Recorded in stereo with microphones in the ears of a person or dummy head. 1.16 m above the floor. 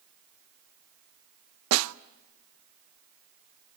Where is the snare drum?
80° right, 0.7 m.